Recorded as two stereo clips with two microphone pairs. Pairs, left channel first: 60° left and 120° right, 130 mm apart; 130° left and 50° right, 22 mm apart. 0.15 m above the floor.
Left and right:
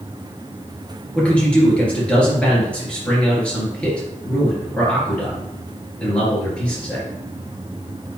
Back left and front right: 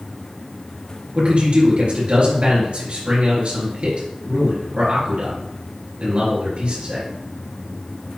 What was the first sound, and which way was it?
A man speaking, 20° right.